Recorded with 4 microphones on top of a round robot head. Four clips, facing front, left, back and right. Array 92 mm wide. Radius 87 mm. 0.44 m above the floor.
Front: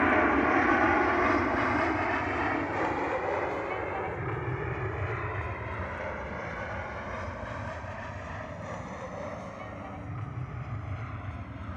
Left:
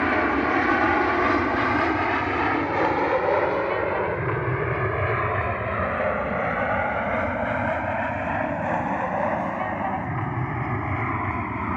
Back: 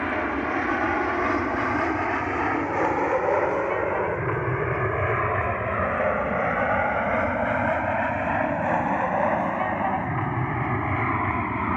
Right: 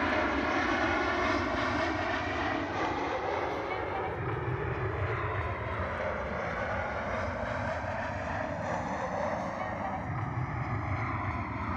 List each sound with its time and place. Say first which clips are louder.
0.0 s an aircraft: left 7 dB, front 2 dB; 70° left; by 11.8 s 150° left